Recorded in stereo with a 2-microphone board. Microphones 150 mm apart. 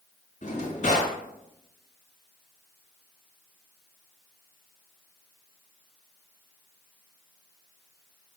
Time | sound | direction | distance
0.4 | a drawer | 55° left (ahead or behind) | 1.1 m